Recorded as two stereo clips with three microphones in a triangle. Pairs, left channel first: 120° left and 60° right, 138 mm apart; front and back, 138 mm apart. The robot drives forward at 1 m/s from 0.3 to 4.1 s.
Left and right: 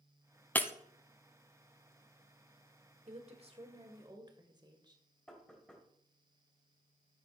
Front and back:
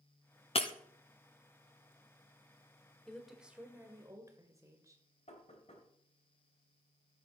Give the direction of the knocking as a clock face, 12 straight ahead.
11 o'clock.